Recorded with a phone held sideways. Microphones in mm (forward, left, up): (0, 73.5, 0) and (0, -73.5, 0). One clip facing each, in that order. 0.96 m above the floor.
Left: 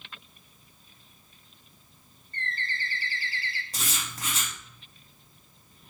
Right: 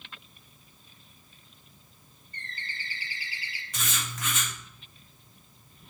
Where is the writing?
35° left (ahead or behind), 1.9 m.